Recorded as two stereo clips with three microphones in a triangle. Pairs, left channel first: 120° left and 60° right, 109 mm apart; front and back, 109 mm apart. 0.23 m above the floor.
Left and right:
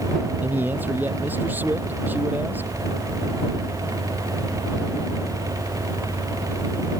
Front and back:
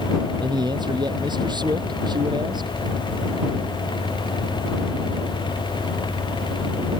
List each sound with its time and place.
0.4 s a man speaking: 130° right